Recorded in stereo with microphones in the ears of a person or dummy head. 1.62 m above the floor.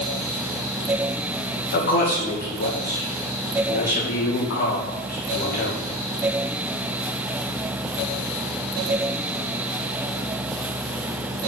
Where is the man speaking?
50° left (ahead or behind), 2 m.